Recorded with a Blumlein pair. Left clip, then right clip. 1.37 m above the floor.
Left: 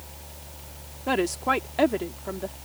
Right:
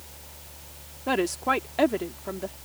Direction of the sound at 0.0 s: 15° left.